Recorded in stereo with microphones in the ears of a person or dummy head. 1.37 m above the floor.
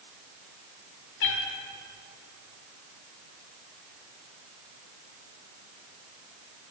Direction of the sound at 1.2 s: 50° left (ahead or behind).